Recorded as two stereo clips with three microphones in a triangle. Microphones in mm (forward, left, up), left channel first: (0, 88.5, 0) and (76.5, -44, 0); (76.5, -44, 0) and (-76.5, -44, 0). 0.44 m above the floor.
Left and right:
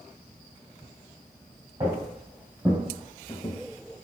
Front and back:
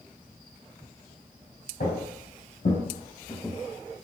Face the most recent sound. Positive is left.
turn(degrees=130)